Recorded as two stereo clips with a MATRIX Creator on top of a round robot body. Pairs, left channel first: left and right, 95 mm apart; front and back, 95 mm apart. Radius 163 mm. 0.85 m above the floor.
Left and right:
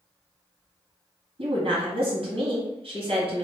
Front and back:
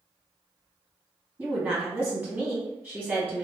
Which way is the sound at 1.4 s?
110° right.